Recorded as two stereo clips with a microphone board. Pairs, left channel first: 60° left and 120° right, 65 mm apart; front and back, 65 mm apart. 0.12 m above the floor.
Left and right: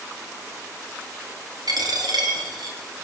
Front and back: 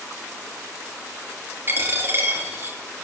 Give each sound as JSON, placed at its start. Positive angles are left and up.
{"t": 1.7, "sound": "a dropped coin", "azimuth_deg": -125, "distance_m": 4.5}